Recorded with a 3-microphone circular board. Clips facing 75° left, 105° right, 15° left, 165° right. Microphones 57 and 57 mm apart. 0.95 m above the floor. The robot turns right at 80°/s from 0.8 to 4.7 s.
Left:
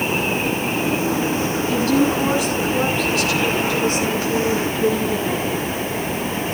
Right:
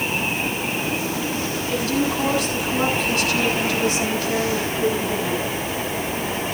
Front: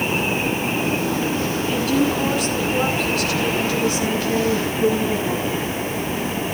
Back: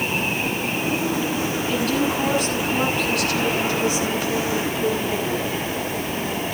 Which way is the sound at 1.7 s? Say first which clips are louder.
Left 5 dB, front 3 dB; 90° left.